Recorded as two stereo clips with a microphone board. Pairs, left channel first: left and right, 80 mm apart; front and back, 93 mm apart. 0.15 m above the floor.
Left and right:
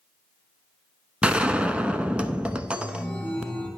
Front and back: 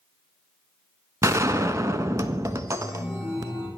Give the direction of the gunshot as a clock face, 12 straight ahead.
5 o'clock.